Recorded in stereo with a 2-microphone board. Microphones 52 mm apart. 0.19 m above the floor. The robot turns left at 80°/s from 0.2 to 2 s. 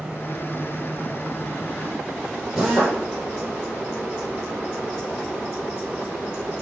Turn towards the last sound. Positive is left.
turn(degrees=-20)  # may be behind; listen again after turning